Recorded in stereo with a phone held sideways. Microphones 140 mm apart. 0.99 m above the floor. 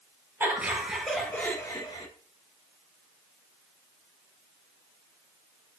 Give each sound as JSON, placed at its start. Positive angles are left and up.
{"t": 0.4, "sound": "laughter", "side_deg": -15, "distance_m": 1.3}